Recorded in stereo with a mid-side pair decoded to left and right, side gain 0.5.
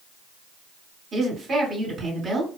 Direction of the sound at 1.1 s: 45° right.